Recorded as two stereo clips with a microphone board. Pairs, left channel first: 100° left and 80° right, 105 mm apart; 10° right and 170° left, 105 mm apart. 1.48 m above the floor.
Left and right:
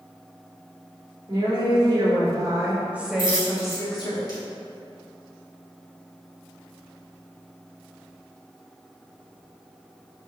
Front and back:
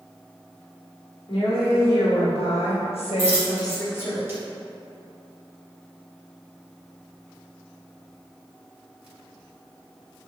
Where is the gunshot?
No gunshot in this recording.